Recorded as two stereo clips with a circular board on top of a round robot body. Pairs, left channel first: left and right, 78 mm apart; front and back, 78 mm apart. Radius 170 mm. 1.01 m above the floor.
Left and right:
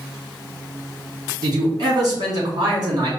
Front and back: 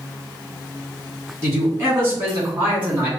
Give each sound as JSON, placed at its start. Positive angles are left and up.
{"t": 1.4, "sound": "a man speaking", "azimuth_deg": -125, "distance_m": 2.5}